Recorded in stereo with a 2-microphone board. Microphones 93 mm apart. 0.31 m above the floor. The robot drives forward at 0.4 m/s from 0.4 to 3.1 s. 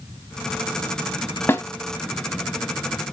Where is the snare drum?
25° left (ahead or behind), 0.8 m.